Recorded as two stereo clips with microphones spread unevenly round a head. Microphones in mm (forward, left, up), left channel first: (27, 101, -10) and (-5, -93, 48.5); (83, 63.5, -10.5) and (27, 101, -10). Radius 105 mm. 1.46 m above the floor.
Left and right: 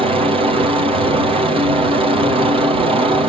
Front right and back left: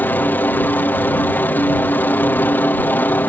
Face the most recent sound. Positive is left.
turn(degrees=-35)